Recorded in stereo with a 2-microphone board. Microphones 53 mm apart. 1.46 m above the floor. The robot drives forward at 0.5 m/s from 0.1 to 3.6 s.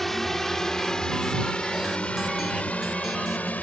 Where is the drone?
5° left (ahead or behind); by 3.6 s 30° left (ahead or behind).